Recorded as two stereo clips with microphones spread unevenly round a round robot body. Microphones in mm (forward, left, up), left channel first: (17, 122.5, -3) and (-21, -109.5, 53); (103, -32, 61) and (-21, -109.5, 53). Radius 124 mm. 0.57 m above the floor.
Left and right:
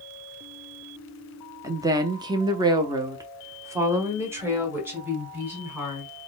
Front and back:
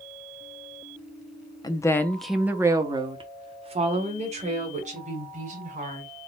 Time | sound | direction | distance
1.6 | a woman speaking | 10° right | 0.6 m